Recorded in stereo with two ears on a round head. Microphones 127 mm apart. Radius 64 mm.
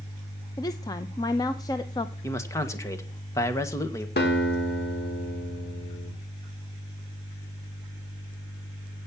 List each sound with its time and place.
0.6 s a woman speaking: 25° left (ahead or behind), 0.7 m
2.2 s a man speaking: 20° left (ahead or behind), 1.6 m
4.2 s a guitar: 75° left (ahead or behind), 3.5 m